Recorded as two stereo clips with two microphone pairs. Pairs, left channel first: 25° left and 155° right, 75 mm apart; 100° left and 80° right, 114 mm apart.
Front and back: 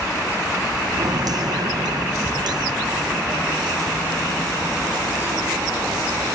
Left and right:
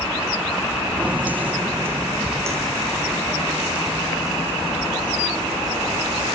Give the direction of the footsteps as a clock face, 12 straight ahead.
5 o'clock.